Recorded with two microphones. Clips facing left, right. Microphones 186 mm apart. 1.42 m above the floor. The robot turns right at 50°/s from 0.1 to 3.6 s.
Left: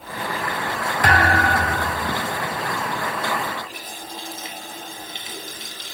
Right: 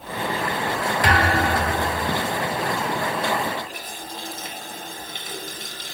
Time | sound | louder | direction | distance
1.0 | a thud | left 2 dB | 55° left | 4 m
3.6 | a running tap | right 1 dB | 50° right (ahead or behind) | 4.5 m